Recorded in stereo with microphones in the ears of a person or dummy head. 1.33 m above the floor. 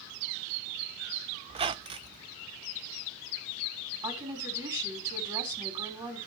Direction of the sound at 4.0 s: 25° right (ahead or behind).